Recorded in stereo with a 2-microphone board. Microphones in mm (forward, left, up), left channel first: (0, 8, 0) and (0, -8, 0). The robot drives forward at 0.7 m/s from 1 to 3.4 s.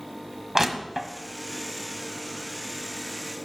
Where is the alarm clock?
No alarm clock in this recording.